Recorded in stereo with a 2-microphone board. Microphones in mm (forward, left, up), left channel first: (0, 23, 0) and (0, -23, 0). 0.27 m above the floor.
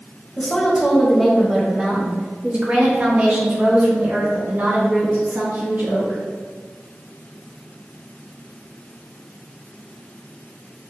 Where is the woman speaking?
20° left (ahead or behind), 1.1 m; by 6.2 s 55° right (ahead or behind), 3 m.